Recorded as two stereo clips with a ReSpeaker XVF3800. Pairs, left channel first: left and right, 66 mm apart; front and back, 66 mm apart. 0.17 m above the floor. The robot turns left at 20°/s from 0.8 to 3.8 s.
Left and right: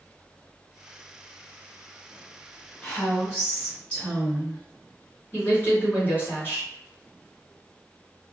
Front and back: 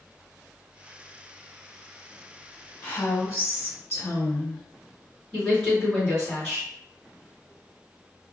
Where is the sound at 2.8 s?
50° left, 1.6 m; by 4.6 s 30° left, 1.6 m.